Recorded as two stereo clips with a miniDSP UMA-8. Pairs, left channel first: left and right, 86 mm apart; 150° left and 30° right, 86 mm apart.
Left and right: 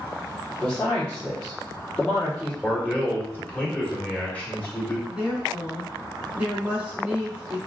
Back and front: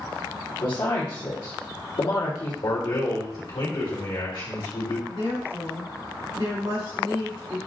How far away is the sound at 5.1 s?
About 1.9 m.